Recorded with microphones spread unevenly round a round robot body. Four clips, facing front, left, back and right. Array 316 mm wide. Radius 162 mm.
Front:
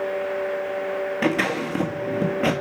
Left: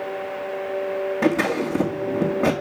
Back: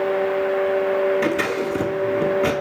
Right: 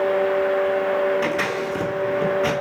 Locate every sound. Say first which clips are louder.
1.2 s scissors: left 2 dB, back 2 dB; 60° left, 1.5 m